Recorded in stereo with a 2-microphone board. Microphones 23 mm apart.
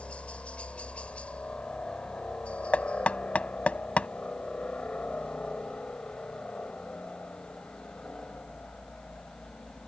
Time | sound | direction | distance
0.0 | a helicopter | 65° left (ahead or behind) | ?
2.7 | knocking | 75° left (ahead or behind) | ?